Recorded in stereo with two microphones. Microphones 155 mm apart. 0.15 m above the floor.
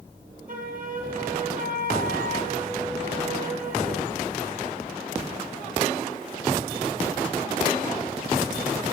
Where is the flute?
70° right (ahead or behind), 1.3 m.